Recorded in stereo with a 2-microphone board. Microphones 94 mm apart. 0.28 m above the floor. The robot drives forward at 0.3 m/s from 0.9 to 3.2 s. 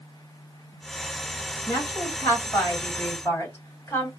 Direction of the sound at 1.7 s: 25° left (ahead or behind).